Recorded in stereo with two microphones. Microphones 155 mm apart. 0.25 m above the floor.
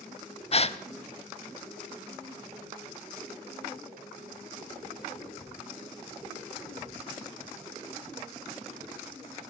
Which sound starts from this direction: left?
A gasp, at 0.5 s.